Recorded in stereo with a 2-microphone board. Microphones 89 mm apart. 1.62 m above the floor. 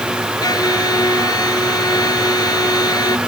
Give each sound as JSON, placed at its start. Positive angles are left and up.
{"t": 0.4, "sound": "a violin", "side_deg": 50}